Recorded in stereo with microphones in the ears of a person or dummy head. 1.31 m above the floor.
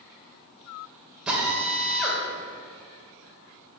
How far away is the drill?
About 3 m.